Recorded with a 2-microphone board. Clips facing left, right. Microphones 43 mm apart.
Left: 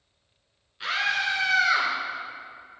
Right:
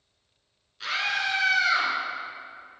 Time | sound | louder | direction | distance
0.8 | a scream | left 2 dB | 15° left (ahead or behind) | 1.5 m